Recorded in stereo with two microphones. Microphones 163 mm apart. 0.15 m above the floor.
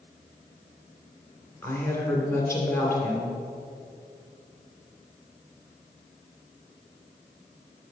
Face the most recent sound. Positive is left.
turn(degrees=15)  # may be behind; listen again after turning